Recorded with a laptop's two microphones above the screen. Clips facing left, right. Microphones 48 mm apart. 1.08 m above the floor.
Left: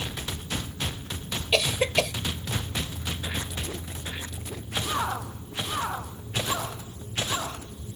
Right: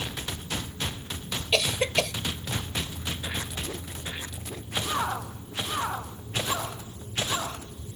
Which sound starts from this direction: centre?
A cough, at 1.5 s.